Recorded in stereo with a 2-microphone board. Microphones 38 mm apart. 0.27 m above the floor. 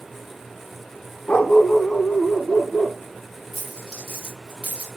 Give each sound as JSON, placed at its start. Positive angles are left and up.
{"t": 1.3, "sound": "a dog barking", "side_deg": 40, "distance_m": 0.6}
{"t": 3.5, "sound": "a dropped coin", "side_deg": -5, "distance_m": 2.0}